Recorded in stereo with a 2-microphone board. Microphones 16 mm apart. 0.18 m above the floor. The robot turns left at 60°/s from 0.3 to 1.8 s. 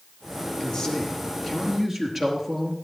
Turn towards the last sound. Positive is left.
turn(degrees=-5)